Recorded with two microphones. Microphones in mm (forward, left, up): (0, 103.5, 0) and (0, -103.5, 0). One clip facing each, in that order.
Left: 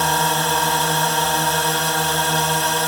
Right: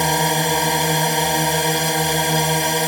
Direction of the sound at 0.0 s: 15° right (ahead or behind).